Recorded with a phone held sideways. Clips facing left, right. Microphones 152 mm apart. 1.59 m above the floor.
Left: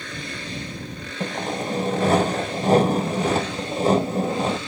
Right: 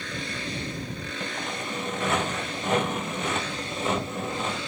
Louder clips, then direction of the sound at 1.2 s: Left 10 dB; 40° left (ahead or behind).